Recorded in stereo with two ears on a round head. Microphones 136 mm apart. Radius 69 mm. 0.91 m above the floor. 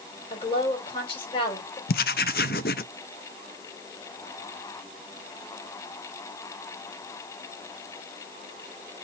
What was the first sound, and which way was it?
A woman speaking, 35° left (ahead or behind).